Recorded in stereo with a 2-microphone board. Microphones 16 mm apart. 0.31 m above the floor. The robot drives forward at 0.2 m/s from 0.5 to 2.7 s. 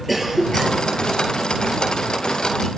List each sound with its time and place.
0.1 s a cough: 5° right (ahead or behind), 7 m